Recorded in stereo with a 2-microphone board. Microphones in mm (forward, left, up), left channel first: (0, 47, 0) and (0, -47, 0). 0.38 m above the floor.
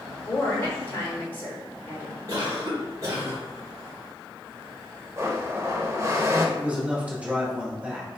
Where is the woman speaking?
25° left (ahead or behind), 1.1 m.